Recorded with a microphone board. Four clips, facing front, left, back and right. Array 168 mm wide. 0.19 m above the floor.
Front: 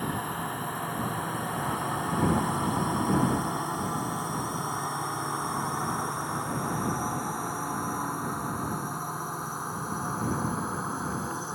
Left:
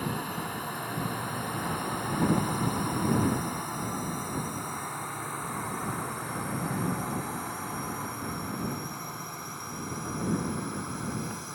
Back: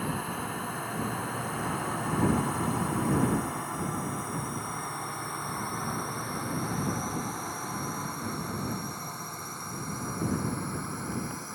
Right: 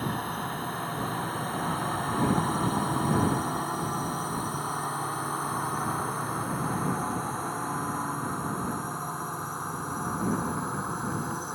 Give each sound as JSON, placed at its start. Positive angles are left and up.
{"t": 0.0, "sound": "a drone", "azimuth_deg": -55}